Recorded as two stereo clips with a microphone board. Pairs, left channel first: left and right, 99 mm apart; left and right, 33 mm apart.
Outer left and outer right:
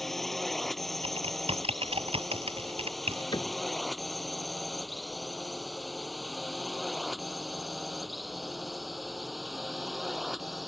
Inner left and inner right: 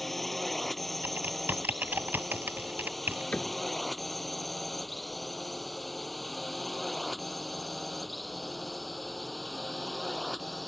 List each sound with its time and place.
0.0 s a drone: centre (ahead or behind)
1.0 s typing on a keyboard: 75° right (ahead or behind)
3.3 s a cupboard door: 45° left (ahead or behind)